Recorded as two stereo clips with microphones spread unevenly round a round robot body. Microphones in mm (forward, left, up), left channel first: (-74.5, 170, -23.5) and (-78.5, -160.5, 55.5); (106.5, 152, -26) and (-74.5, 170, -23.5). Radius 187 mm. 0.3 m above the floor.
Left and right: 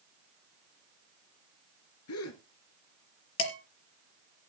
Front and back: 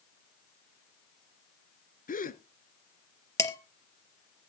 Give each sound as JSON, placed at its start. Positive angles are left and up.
{"t": 2.1, "sound": "a gasp", "azimuth_deg": 40, "distance_m": 1.3}
{"t": 3.4, "sound": "dishes clattering", "azimuth_deg": 70, "distance_m": 4.0}